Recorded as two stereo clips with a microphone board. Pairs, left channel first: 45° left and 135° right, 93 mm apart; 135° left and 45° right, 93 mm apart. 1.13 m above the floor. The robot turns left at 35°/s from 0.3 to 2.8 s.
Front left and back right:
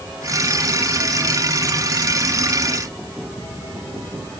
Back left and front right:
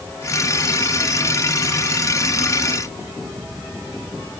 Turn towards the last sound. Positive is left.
No sound to turn to.